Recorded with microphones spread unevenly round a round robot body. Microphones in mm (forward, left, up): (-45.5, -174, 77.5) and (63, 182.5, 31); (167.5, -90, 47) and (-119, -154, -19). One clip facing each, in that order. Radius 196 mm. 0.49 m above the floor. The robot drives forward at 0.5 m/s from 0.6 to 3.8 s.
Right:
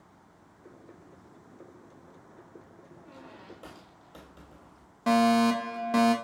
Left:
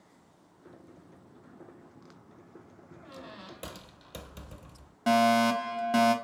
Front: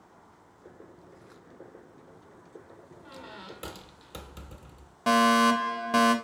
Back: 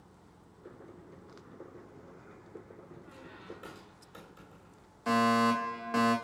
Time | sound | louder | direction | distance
3.0 | a squeak | left 2 dB, front 6 dB | 20° left | 1.3 m
5.1 | a fire alarm | right 2 dB, front 4 dB | 15° left | 1.9 m